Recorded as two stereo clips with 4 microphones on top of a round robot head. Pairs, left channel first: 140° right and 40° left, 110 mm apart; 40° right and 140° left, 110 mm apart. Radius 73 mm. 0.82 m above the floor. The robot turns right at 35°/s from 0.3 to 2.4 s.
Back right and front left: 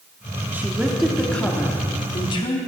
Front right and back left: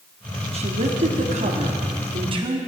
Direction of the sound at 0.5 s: 115° left.